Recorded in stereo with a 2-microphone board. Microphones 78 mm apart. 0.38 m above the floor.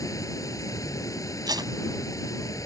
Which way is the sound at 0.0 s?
45° left (ahead or behind).